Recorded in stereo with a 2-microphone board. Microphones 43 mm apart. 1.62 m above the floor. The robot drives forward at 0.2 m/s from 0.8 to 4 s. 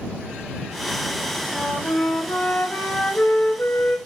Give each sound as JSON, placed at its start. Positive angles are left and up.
{"t": 1.5, "sound": "a flute", "side_deg": 55, "distance_m": 2.0}